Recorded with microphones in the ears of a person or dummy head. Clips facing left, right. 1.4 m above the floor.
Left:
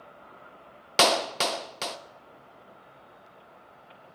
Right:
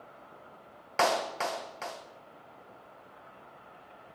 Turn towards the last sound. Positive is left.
turn(degrees=50)  # may be behind; listen again after turning